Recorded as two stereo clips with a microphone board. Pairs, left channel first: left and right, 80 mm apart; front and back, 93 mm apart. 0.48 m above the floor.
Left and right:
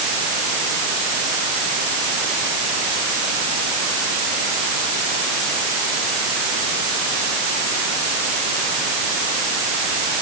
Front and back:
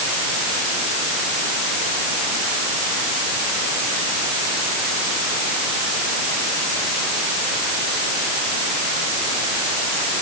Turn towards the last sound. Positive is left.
No sound to turn to.